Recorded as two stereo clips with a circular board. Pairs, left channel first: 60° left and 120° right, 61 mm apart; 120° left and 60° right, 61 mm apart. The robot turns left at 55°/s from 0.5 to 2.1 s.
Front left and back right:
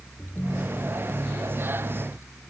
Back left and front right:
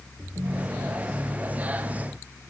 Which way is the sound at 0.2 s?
15° right.